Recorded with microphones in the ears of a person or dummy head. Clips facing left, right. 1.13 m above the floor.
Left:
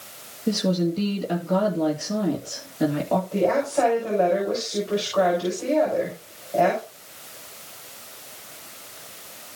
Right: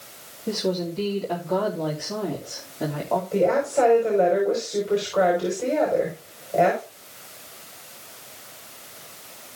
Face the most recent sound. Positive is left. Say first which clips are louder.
# right 3 dB
turn(degrees=-25)  # may be behind; listen again after turning